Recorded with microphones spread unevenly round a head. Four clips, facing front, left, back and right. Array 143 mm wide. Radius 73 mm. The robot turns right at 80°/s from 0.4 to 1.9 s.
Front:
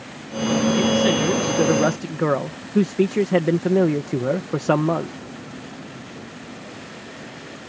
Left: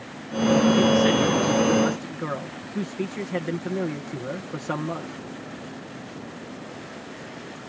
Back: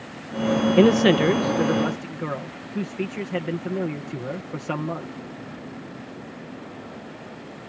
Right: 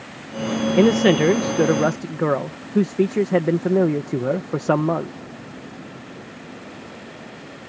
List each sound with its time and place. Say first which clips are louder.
0.8 s a man speaking: right 4 dB, back 3 dB; 140° right; by 5.2 s 50° right